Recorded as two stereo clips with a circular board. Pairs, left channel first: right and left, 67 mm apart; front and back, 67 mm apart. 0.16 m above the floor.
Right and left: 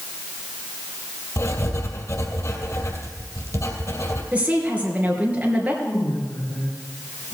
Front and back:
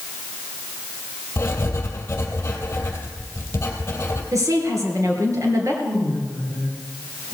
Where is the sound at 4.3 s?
155° left, 3 m.